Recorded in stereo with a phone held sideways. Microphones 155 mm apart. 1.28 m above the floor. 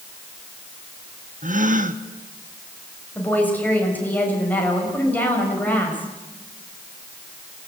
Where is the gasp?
60° right (ahead or behind), 1.2 m.